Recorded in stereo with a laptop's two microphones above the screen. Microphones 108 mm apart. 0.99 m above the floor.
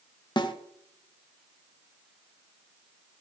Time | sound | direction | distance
0.4 | a snare drum | 45° left (ahead or behind) | 0.5 m